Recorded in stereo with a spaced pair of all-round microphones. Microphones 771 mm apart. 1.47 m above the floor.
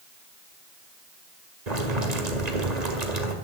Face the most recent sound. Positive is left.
turn(degrees=-60)  # may be behind; listen again after turning